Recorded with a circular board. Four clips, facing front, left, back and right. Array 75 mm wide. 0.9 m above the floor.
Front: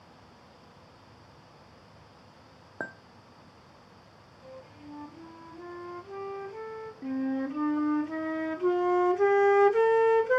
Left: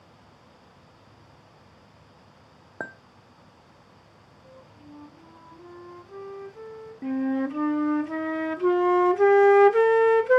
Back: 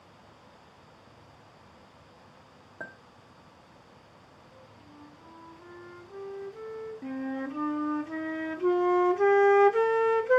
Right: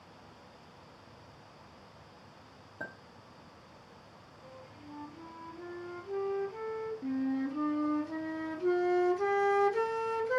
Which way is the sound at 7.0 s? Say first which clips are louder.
Left 8 dB, front 5 dB; 95° left.